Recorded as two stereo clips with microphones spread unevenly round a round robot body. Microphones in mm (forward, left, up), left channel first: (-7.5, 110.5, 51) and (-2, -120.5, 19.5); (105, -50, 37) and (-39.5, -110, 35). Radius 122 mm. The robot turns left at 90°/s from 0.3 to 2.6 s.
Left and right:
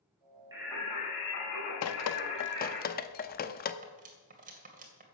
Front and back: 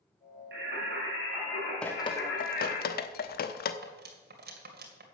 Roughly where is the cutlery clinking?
Behind right.